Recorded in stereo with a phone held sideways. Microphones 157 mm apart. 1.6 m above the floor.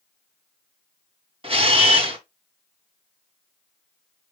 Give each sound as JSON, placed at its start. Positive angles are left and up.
{"t": 1.4, "sound": "a camera shutter", "side_deg": -35, "distance_m": 1.2}